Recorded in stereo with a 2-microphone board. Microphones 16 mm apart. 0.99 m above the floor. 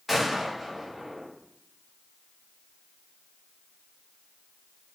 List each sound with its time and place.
0.1 s a gunshot: 25° right (ahead or behind), 1.2 m